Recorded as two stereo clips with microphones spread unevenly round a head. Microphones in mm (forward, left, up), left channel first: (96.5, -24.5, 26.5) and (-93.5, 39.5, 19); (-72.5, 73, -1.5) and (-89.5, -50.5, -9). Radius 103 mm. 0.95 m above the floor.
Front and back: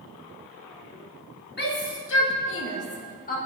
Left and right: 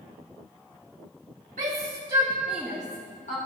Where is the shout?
60° right, 2 m; by 3.4 s 30° left, 2 m.